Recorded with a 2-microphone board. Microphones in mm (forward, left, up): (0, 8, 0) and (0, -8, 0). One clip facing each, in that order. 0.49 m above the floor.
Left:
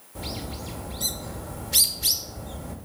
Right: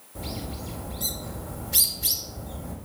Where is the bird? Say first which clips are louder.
Left 1 dB; 25° left (ahead or behind), 2.0 m.